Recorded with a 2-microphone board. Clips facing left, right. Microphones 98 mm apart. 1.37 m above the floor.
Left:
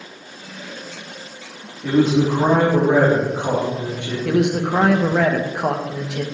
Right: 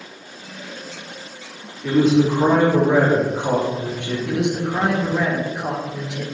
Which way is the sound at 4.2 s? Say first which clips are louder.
Left 5 dB; 80° left.